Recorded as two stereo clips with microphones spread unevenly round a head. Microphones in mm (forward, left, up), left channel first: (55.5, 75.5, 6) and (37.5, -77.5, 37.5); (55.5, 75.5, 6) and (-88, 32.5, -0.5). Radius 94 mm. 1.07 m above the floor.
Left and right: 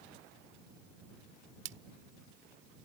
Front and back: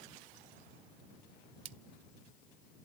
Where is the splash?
110° right.